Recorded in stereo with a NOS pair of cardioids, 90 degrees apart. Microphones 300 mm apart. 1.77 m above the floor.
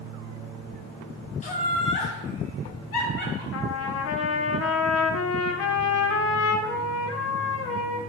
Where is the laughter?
25° left, 0.7 m; by 3.4 s 55° left, 1.7 m.